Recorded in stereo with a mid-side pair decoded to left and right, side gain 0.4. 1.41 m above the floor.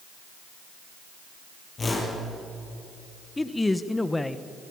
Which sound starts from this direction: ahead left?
A whoosh, at 1.8 s.